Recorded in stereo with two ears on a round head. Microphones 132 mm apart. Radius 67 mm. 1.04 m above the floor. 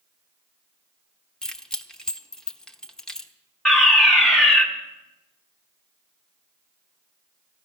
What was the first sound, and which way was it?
Keys jangling, 5° left (ahead or behind).